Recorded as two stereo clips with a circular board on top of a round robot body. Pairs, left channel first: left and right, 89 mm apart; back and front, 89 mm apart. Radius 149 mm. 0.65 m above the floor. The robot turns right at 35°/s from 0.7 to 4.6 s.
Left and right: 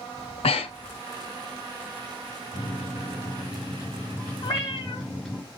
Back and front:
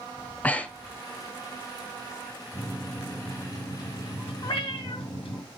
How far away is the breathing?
About 0.6 m.